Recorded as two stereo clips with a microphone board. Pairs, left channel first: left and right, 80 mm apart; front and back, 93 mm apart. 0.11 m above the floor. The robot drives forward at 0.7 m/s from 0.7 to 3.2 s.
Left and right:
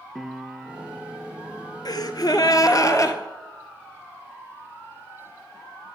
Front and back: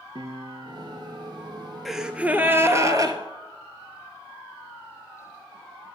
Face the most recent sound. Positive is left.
turn(degrees=135)